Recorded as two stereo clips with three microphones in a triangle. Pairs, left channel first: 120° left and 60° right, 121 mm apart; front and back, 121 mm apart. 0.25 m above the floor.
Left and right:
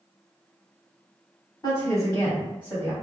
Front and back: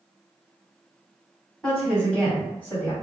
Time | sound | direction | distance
1.6 | a woman speaking | 85° left | 1.8 m